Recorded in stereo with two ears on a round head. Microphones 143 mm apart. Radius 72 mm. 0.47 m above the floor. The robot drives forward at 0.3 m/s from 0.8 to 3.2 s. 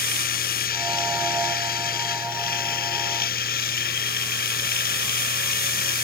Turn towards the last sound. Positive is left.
turn(degrees=60)  # may be behind; listen again after turning